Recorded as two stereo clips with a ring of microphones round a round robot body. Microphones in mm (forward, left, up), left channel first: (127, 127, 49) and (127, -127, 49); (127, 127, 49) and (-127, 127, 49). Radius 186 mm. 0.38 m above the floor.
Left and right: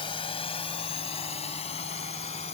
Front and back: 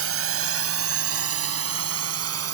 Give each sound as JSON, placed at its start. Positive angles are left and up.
{"t": 0.0, "sound": "a drone", "azimuth_deg": 165}